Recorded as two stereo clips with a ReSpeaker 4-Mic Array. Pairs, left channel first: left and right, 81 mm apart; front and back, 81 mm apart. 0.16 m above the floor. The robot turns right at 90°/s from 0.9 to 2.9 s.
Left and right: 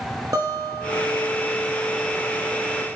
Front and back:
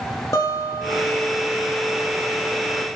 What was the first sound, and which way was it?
A guitar, 45° right.